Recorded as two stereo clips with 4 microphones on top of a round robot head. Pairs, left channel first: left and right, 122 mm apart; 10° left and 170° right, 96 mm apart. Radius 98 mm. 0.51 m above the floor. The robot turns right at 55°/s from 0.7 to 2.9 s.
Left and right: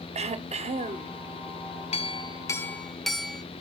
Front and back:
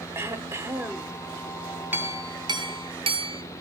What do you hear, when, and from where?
0.1 s throat clearing: 105° right, 1.0 m; by 1.2 s 80° right, 1.0 m
1.9 s a clink: 125° left, 1.1 m; by 3.4 s 175° left, 1.1 m